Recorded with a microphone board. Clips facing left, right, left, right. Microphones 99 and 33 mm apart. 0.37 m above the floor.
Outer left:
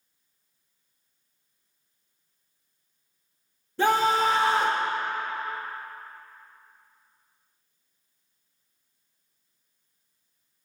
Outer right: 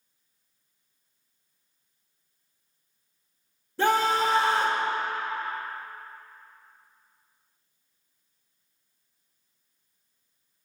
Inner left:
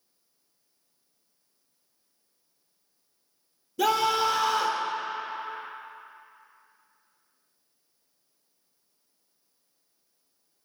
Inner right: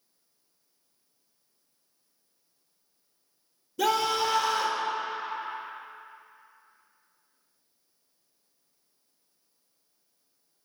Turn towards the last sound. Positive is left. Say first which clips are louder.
# outer left 1 dB, inner left 2 dB
turn(degrees=-5)  # may be behind; listen again after turning